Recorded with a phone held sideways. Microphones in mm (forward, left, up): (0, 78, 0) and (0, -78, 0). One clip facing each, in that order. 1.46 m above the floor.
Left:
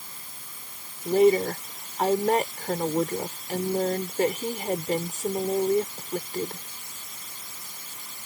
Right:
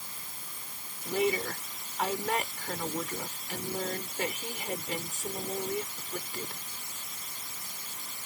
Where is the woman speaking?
40° left (ahead or behind).